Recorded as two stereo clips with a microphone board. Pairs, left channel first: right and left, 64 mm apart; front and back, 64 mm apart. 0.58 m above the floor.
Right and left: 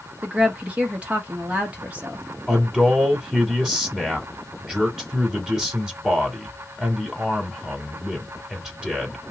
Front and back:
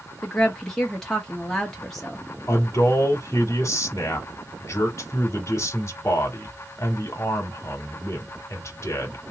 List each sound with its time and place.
0.2 s a woman speaking: 75° left, 1.2 m
2.5 s a man speaking: 15° left, 1.6 m